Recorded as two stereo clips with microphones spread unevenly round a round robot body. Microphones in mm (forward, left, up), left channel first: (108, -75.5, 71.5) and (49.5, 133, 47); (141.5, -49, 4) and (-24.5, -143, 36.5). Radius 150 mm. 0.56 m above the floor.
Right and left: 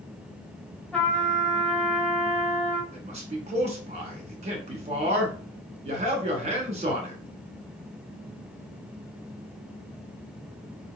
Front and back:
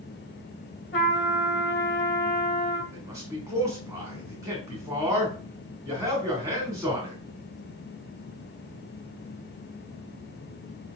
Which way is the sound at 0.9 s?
15° left.